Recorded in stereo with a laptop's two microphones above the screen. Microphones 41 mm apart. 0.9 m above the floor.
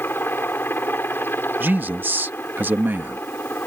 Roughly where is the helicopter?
Left.